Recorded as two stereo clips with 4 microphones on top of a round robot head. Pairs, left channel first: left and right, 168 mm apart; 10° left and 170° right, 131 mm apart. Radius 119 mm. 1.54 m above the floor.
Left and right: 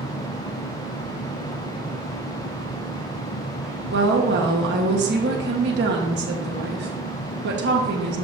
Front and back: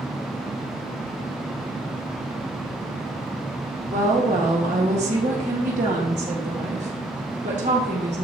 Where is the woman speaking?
125° right, 1.5 m.